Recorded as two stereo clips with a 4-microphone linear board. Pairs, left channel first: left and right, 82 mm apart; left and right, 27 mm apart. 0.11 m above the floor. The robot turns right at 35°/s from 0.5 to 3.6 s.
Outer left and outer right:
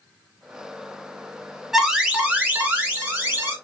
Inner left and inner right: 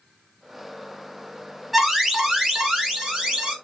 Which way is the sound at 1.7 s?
10° right (ahead or behind).